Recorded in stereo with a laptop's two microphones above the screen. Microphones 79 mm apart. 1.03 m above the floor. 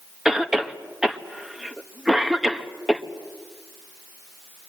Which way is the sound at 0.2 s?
5° right (ahead or behind).